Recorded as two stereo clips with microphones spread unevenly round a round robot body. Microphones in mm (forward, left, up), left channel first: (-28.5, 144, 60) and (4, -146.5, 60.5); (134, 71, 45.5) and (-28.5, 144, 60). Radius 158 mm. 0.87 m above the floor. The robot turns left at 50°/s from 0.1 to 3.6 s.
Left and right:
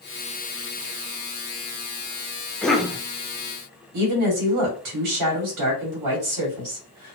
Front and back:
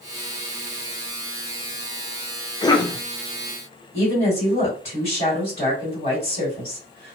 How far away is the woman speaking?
About 2.0 m.